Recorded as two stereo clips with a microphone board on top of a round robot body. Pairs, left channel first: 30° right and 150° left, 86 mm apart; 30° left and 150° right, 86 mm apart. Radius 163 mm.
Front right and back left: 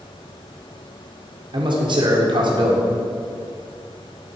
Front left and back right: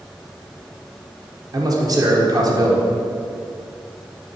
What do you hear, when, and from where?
1.5 s a man speaking: 170° left, 1.5 m